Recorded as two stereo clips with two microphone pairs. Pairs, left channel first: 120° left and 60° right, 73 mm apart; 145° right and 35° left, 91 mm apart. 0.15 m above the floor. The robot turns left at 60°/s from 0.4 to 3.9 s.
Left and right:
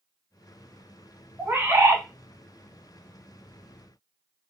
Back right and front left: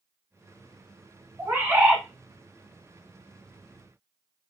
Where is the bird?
10° right, 0.8 m; by 2.0 s 45° right, 0.8 m.